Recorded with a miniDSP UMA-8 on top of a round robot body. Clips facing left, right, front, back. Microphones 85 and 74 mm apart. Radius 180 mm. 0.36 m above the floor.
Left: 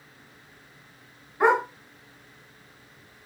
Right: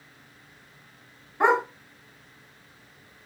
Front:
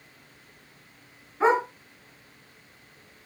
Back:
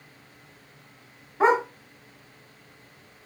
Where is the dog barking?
160° right, 2.0 m.